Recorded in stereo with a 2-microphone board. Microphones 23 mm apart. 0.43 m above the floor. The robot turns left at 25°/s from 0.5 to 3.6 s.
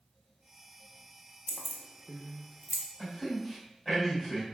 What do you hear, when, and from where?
1.5 s keys jangling: 15° left (ahead or behind), 0.5 m; by 2.8 s 5° right (ahead or behind), 0.5 m
3.0 s a man speaking: 15° left (ahead or behind), 1.8 m; by 4.4 s 5° left (ahead or behind), 1.8 m